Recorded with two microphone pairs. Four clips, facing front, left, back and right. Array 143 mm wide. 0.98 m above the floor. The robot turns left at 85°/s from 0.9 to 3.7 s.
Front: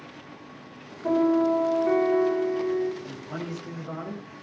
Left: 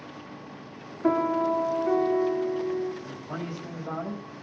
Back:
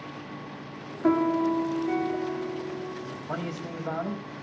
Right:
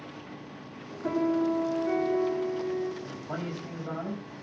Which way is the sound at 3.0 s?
135° right.